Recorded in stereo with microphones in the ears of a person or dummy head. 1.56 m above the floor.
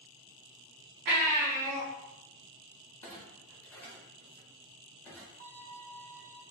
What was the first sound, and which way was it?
A baby crying, 35° right (ahead or behind).